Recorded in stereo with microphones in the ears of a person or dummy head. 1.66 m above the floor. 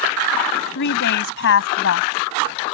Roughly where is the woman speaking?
Left.